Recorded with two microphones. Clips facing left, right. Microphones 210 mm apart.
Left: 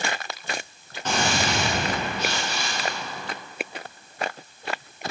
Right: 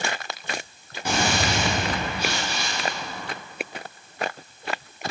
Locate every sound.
1.1 s a gunshot: 10° right (ahead or behind), 4 m